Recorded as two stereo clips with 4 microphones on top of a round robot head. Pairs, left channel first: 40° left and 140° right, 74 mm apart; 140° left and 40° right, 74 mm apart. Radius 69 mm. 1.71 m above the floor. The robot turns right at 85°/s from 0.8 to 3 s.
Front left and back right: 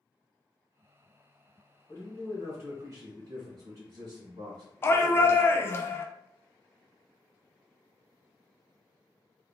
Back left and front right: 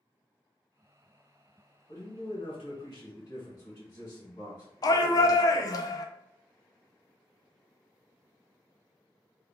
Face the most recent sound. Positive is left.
turn(degrees=100)